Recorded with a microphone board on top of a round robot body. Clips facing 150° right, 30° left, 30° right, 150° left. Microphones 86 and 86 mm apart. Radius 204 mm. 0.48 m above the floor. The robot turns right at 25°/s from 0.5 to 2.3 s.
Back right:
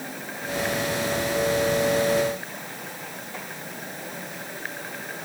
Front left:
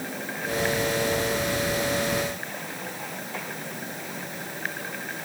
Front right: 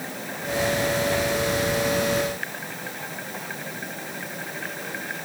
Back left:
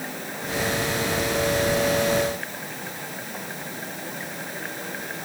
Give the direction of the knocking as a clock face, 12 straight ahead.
I don't hear knocking.